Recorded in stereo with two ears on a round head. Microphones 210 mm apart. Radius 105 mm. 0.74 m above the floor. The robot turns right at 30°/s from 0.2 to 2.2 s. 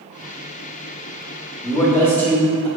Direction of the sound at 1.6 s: 15° left (ahead or behind).